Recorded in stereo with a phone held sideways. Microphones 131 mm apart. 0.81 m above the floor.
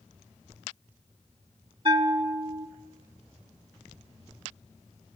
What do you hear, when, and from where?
1.9 s a bell: 45° right (ahead or behind), 1.2 m